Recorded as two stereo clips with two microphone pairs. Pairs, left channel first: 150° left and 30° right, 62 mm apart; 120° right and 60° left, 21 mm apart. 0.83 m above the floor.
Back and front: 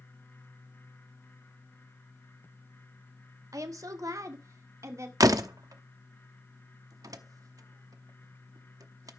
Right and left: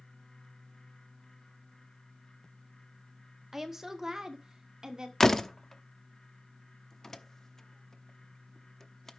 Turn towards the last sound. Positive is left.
turn(degrees=-50)